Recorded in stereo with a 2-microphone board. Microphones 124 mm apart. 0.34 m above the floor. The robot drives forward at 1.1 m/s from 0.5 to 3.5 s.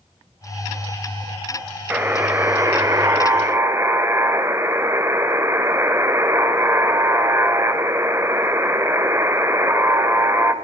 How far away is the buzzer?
About 1.6 m.